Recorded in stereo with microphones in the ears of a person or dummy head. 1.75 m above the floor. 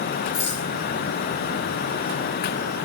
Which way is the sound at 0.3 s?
35° left (ahead or behind).